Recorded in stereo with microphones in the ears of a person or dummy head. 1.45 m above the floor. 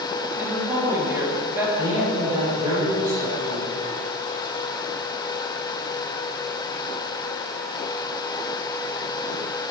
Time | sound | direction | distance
0.4 | a woman speaking | 15° right (ahead or behind) | 3 m
1.8 | a man speaking | 20° right (ahead or behind) | 4.5 m